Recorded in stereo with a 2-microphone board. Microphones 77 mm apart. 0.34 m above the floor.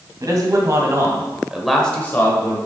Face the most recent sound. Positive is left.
turn(degrees=45)  # may be behind; listen again after turning